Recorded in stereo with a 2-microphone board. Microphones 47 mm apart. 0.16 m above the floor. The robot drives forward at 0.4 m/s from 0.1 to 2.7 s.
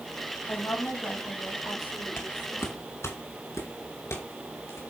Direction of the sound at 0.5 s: 70° left (ahead or behind).